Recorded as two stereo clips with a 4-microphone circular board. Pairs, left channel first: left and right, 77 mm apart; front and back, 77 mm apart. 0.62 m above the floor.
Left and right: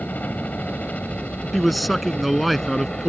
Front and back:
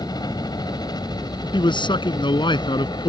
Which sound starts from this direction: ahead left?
A helicopter, at 0.0 s.